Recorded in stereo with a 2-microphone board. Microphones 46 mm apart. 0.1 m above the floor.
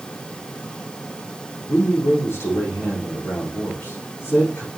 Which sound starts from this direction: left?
A man speaking, at 1.7 s.